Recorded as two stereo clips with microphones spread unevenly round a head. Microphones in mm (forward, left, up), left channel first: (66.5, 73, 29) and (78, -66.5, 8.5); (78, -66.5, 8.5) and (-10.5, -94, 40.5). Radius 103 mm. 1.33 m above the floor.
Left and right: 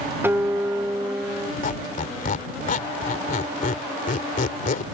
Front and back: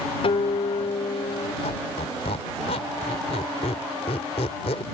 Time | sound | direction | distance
0.2 | a guitar | 10° right | ?
1.6 | a squeak | 75° left | ?